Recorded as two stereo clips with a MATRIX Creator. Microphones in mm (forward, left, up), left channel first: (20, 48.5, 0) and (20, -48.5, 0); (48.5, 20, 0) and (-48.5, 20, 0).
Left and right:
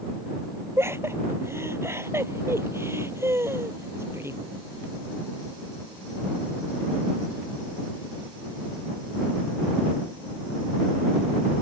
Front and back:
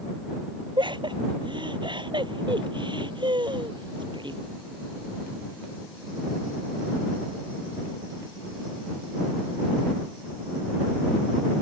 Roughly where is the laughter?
Behind right.